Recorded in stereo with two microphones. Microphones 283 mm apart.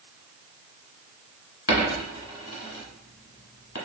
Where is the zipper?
No zipper in this recording.